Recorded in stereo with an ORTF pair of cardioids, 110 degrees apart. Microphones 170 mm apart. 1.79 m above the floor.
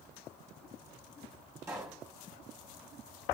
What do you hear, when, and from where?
1.6 s a pop: 15° right, 1.2 m